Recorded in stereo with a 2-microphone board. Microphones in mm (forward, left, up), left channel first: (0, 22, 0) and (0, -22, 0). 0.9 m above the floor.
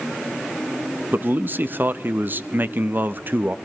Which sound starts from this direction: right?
A man speaking, at 1.1 s.